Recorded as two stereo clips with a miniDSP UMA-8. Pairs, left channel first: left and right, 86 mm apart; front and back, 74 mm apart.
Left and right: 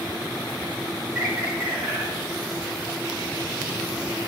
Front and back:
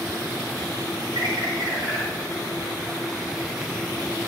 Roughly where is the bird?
Behind.